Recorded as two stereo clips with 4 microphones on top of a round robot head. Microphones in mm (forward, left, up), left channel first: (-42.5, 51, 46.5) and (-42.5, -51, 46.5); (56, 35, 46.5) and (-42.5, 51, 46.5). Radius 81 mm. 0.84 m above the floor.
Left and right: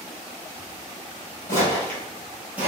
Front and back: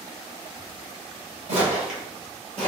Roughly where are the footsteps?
Behind left.